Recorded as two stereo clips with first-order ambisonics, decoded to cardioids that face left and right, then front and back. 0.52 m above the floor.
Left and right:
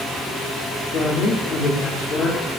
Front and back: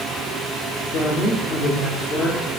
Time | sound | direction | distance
0.9 | a woman speaking | 40° left | 1.0 m